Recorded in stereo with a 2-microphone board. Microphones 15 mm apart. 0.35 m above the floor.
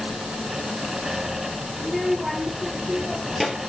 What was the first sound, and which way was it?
A child speaking, centre (ahead or behind).